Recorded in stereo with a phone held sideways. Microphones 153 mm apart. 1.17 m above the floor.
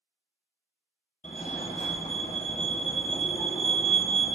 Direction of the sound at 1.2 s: 55° left (ahead or behind).